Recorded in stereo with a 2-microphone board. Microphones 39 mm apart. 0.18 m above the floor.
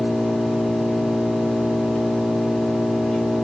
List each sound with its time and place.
0.0 s an engine running: 25° left (ahead or behind), 6 m